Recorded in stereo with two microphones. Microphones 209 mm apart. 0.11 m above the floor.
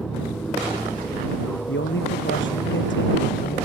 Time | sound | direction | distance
0.0 | an aircraft | 5° left (ahead or behind) | ?
1.7 | a man speaking | 70° left (ahead or behind) | ?